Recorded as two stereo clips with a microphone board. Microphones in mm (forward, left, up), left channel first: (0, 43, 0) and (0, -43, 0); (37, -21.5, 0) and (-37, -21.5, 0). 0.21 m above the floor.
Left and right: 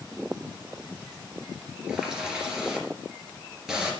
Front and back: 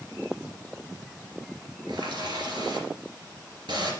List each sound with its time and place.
1.9 s a running tap: 170° right, 2.5 m